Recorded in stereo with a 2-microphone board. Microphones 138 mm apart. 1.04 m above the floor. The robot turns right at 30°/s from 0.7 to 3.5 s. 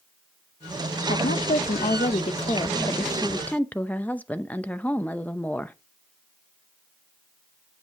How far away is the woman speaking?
About 0.6 m.